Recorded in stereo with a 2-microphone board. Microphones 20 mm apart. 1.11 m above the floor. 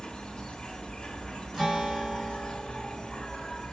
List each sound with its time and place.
0.0 s an insect: 40° left (ahead or behind), 1.6 m
1.5 s a guitar: 20° right (ahead or behind), 3 m